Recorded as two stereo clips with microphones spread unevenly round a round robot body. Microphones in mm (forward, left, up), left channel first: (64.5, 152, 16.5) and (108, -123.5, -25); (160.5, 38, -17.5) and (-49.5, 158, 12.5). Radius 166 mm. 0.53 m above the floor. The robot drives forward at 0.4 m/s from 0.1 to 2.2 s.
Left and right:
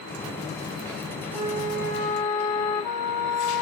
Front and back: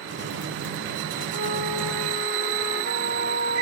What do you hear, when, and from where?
1.3 s a flute: 115° left, 1.7 m; by 3.6 s 125° left, 1.9 m